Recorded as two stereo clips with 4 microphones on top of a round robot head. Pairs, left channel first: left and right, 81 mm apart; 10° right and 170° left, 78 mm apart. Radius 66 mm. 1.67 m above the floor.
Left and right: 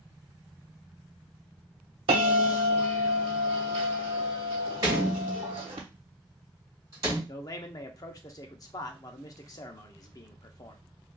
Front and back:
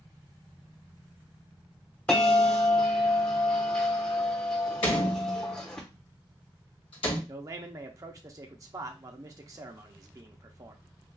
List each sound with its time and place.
2.1 s a bell: 90° right, 1.0 m
4.8 s a door slam: 30° right, 1.3 m
7.3 s a man speaking: 125° left, 0.6 m